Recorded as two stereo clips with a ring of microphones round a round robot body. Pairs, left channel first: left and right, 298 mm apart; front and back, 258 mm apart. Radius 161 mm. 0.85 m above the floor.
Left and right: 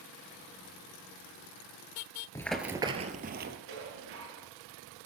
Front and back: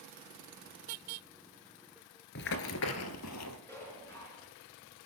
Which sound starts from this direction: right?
Dishes clattering, at 3.7 s.